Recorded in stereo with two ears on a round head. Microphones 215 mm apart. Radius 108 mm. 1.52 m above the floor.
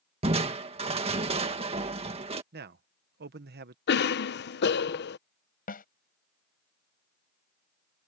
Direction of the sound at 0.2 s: 25° right (ahead or behind).